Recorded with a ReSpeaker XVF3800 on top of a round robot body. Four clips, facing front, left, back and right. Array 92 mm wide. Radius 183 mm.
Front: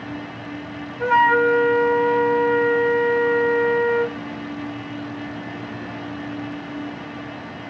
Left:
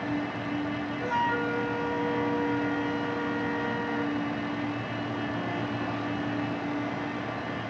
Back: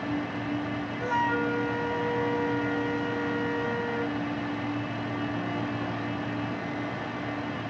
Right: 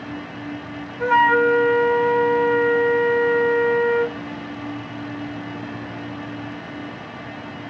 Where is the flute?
50° right, 0.6 m.